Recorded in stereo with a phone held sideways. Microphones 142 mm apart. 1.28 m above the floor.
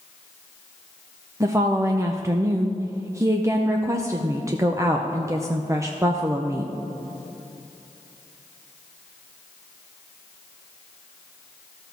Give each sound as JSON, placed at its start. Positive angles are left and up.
{"t": 1.4, "sound": "a woman speaking", "side_deg": -20, "distance_m": 0.6}